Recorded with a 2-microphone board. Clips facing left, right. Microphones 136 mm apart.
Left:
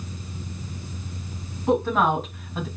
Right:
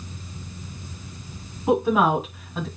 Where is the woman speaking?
10° right (ahead or behind), 2.5 m; by 2.7 s centre (ahead or behind), 2 m.